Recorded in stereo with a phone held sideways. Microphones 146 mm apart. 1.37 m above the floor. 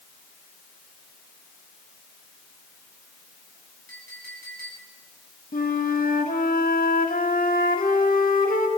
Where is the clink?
85° right, 9.5 m.